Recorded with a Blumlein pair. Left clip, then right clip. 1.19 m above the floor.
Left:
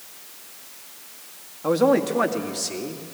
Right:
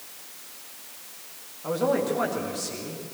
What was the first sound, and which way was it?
A man speaking, 65° left.